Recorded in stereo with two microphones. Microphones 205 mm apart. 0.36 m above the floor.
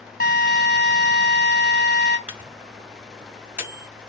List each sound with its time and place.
0.2 s a drill: 50° left (ahead or behind), 2 m
2.3 s a microwave: 10° right (ahead or behind), 1.4 m